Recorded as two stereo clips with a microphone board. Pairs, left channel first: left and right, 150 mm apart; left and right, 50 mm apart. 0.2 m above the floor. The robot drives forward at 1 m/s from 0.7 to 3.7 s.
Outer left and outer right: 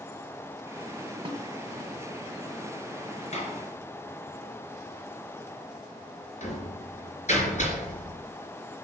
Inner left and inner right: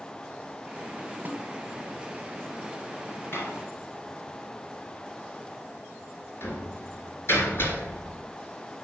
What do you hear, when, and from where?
1.2 s a snare drum: 35° right (ahead or behind), 1.7 m
3.3 s a door slam: 50° left (ahead or behind), 3 m; by 8.2 s 55° left (ahead or behind), 3 m